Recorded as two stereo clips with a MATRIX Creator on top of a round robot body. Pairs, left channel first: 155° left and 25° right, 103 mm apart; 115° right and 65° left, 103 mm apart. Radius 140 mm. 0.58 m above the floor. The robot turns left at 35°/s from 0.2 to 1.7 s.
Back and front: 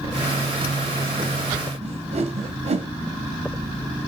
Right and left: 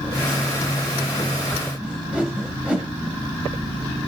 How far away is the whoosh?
About 1.4 m.